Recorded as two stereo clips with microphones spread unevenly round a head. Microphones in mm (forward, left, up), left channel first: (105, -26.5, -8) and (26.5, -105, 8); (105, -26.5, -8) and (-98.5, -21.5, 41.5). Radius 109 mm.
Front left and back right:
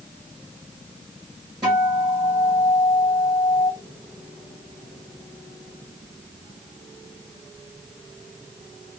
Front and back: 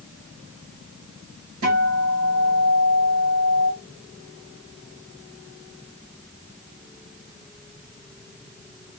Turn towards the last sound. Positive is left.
turn(degrees=150)